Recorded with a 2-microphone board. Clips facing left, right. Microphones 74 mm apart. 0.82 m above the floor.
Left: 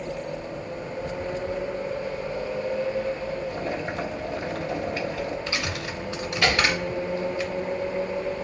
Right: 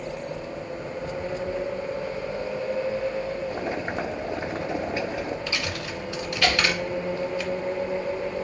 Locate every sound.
3.5 s boiling: 25° right (ahead or behind), 1.7 m
5.5 s a dropped coin: 20° left (ahead or behind), 1.5 m